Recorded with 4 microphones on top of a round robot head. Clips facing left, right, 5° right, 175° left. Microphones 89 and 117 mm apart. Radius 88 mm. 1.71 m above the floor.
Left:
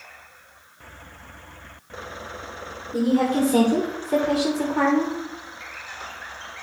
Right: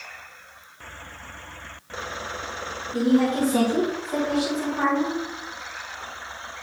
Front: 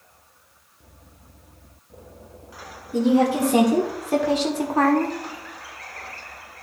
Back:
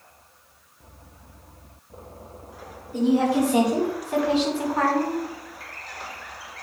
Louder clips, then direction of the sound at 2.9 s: Even, front 2 dB; 30° left.